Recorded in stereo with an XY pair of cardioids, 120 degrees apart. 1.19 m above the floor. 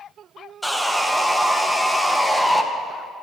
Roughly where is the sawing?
Ahead.